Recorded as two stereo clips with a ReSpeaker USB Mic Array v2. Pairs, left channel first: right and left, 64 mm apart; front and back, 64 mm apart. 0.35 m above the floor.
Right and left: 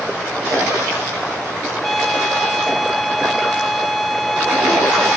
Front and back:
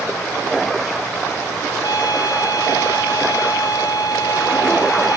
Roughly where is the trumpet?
Ahead.